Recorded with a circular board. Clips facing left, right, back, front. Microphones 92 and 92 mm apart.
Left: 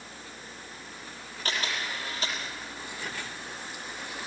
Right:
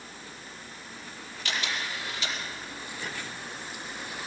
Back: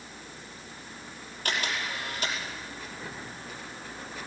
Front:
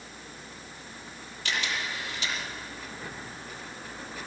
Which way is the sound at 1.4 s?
140° left.